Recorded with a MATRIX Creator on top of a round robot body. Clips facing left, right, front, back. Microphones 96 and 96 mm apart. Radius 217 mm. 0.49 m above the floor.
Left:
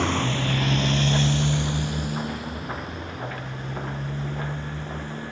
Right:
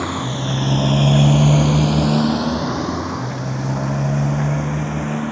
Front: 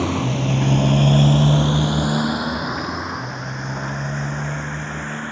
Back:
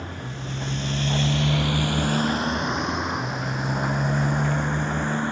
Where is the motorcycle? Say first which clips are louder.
Right 2 dB, front 13 dB; 10° right; by 5.3 s 105° right.